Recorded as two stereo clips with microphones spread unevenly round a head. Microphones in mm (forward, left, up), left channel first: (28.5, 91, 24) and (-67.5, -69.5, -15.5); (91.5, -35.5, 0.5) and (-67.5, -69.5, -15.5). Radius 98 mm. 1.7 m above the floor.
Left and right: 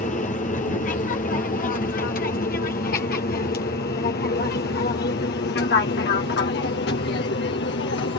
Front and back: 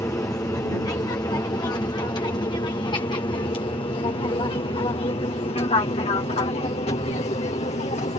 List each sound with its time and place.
0.0 s an aircraft: 75° left; by 8.2 s 60° left